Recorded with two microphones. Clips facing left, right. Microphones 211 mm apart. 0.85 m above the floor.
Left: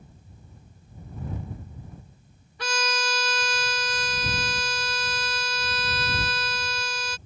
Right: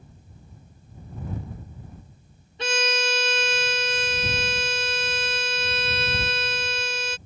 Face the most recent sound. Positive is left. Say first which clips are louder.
# right 4 dB
turn(degrees=-25)  # may be behind; listen again after turning